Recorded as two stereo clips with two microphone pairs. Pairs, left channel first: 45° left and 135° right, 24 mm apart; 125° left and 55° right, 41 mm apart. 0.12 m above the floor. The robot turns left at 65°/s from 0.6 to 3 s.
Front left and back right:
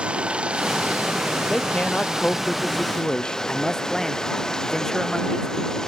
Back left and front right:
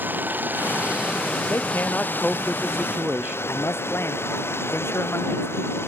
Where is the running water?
95° right; by 5.9 s 110° left.